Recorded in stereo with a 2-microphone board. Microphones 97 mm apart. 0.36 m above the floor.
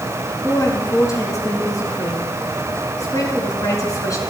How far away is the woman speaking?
About 4.5 m.